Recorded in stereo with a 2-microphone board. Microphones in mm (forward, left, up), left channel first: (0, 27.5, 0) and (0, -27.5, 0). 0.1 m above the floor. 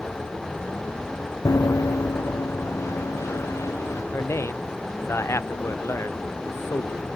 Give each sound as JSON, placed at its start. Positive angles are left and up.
{"t": 1.4, "sound": "running footsteps", "side_deg": 85}
{"t": 4.1, "sound": "a man speaking", "side_deg": 55}